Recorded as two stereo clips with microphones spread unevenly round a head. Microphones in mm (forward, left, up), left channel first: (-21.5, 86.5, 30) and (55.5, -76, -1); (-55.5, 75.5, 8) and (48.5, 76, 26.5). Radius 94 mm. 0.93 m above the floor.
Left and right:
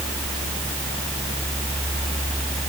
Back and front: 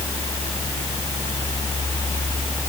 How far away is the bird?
No bird in this recording.